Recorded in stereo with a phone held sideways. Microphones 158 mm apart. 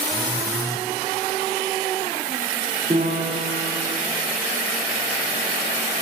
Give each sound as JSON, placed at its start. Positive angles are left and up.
{"t": 0.1, "sound": "a phone buzzing", "side_deg": 20, "distance_m": 0.6}
{"t": 2.9, "sound": "a piano", "side_deg": -45, "distance_m": 7.0}